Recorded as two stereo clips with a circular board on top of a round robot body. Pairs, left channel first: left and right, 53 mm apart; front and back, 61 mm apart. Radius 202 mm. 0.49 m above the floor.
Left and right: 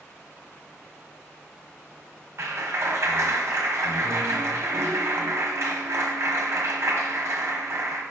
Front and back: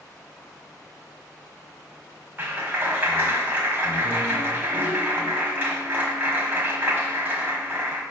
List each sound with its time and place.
2.4 s a clap: 120° right, 1.4 m